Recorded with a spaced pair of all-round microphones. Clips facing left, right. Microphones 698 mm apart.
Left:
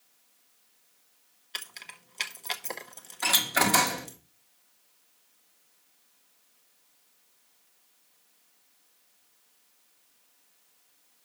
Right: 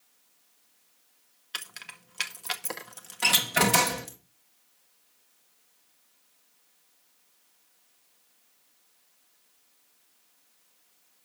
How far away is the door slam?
About 1.2 m.